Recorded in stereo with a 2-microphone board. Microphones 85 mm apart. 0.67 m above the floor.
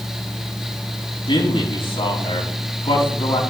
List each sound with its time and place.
1.3 s a man speaking: 75° left (ahead or behind), 4.5 m